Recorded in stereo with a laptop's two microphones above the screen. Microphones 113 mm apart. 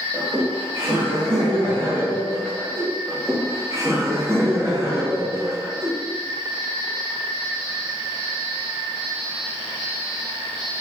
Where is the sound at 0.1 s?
40° right (ahead or behind), 1.0 m; by 2.9 s 70° right (ahead or behind), 2.0 m.